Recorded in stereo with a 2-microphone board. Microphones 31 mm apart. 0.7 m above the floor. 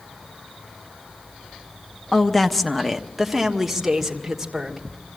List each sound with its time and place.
2.1 s a woman speaking: 15° left (ahead or behind), 0.7 m; by 4.9 s 10° right (ahead or behind), 2.5 m